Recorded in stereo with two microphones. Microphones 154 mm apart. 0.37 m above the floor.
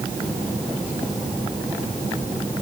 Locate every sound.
Only background noise.